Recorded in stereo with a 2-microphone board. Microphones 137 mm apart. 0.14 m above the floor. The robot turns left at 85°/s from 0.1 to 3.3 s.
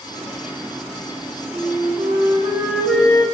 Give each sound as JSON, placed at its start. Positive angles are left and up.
{"t": 1.5, "sound": "a flute", "azimuth_deg": -65, "distance_m": 1.5}